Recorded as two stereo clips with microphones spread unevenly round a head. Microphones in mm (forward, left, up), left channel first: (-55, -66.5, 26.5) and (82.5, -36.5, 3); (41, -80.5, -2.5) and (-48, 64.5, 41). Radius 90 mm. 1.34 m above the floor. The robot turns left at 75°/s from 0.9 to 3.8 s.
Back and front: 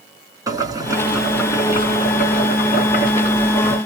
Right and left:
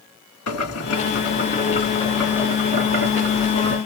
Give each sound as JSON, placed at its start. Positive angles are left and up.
{"t": 0.5, "sound": "boiling", "azimuth_deg": -55, "distance_m": 3.0}